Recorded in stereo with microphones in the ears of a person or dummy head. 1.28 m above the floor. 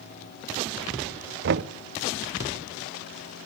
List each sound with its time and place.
1.4 s knocking: 55° right (ahead or behind), 0.6 m